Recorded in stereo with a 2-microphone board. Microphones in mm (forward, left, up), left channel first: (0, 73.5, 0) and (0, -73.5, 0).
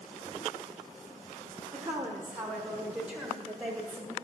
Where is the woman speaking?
15° right (ahead or behind), 1.3 m; by 4.1 s 5° right (ahead or behind), 2.5 m.